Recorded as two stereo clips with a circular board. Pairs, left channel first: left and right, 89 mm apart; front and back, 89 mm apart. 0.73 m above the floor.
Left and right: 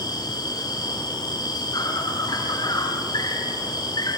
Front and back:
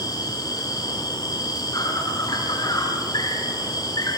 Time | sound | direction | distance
0.0 | an insect | 45° left | 6.5 m